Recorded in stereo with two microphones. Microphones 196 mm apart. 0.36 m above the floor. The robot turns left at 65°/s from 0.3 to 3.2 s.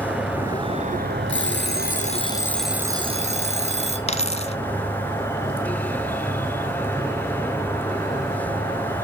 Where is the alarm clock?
85° left, 3.5 m; by 4.0 s 35° right, 3.5 m.